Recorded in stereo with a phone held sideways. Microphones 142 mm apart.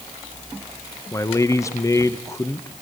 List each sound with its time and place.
1.1 s a man speaking: 20° left (ahead or behind), 0.8 m